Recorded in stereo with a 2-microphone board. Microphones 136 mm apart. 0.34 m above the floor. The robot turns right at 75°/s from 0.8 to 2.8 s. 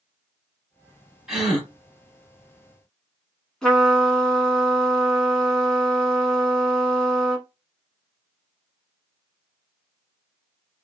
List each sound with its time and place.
1.3 s a gasp: 5° right (ahead or behind), 1.5 m; by 1.7 s 10° left (ahead or behind), 1.5 m
3.6 s a trumpet: 5° left (ahead or behind), 1.1 m